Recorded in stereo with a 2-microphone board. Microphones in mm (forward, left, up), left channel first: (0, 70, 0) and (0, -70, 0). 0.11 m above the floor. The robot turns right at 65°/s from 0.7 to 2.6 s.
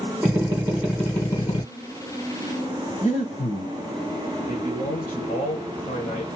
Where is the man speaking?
60° left (ahead or behind), 3 m.